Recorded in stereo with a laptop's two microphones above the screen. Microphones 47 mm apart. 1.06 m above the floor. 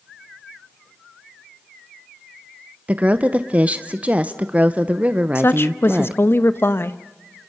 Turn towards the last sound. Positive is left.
turn(degrees=50)  # may be behind; listen again after turning